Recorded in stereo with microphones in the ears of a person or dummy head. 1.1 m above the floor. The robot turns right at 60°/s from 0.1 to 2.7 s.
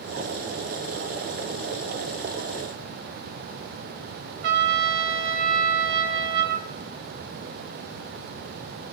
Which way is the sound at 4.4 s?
55° right (ahead or behind).